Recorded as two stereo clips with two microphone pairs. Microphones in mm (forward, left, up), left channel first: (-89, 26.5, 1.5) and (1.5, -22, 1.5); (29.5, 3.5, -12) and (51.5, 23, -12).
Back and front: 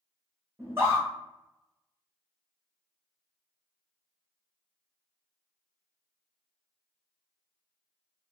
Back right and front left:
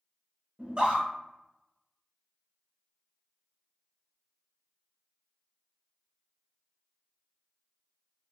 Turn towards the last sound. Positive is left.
turn(degrees=20)